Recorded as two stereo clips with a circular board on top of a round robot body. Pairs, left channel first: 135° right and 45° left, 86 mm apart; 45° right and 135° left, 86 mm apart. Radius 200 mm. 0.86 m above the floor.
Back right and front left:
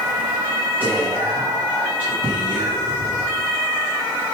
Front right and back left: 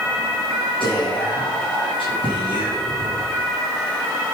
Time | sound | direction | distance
0.8 | whispering | 60° right | 1.6 m